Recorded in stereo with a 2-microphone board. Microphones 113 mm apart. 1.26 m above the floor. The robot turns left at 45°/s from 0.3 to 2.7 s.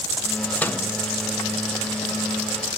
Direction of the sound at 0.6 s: 10° left (ahead or behind).